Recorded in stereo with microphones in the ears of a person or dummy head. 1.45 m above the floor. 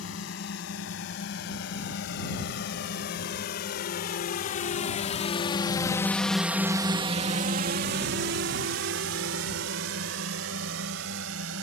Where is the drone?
70° left (ahead or behind); by 11.6 s 85° right.